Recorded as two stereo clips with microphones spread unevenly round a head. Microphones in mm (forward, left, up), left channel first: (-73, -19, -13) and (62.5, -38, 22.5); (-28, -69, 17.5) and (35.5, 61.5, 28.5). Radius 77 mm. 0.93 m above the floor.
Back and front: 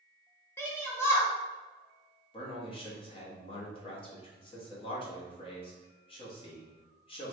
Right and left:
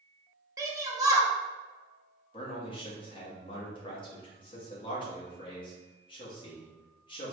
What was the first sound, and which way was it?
A shout, 125° left.